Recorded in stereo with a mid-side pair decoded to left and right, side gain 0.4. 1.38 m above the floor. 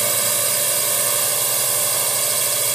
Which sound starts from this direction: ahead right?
A drone, at 0.0 s.